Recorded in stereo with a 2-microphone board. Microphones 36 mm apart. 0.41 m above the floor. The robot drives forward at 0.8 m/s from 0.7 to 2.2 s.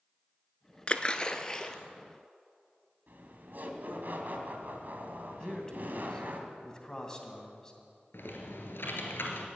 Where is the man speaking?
20° left (ahead or behind), 2.5 m.